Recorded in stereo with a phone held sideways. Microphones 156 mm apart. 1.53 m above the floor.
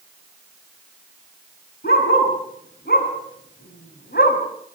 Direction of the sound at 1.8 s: 80° left.